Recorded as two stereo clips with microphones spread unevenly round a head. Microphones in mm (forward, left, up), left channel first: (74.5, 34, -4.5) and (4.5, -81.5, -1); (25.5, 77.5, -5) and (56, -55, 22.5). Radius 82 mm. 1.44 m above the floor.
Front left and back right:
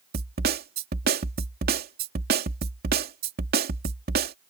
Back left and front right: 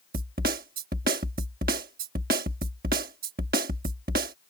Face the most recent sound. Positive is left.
turn(degrees=-120)